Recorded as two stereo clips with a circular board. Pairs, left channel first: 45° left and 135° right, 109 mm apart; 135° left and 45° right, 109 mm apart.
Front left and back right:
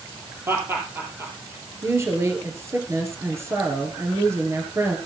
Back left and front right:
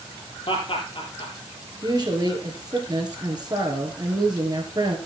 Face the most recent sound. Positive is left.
turn(degrees=-80)